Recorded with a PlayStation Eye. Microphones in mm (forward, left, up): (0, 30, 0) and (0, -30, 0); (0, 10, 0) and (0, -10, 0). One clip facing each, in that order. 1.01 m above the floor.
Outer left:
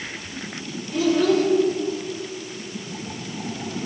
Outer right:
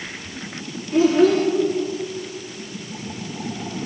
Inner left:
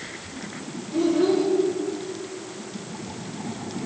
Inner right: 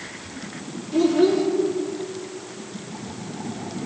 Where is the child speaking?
35° right (ahead or behind), 1.7 m.